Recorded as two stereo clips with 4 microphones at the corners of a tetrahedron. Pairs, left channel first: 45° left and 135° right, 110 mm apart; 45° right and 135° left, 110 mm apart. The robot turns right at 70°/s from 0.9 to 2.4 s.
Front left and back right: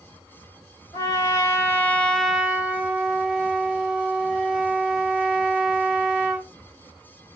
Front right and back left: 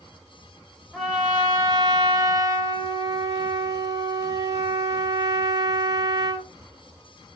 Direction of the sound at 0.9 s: 40° left.